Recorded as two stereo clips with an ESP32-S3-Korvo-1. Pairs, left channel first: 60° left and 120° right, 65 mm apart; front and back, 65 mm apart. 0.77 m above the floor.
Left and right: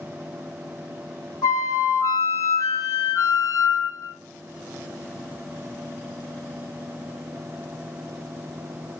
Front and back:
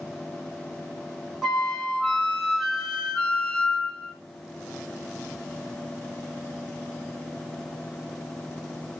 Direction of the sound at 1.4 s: 90° left.